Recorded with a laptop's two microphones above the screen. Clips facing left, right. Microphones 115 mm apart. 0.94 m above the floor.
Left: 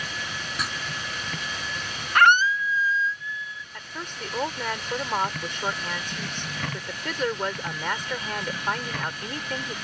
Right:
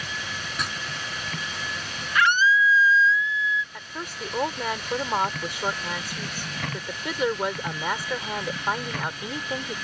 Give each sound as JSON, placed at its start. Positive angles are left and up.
{"t": 0.6, "sound": "writing", "side_deg": 0}
{"t": 2.1, "sound": "a scream", "side_deg": 50}
{"t": 3.7, "sound": "a woman speaking", "side_deg": -10}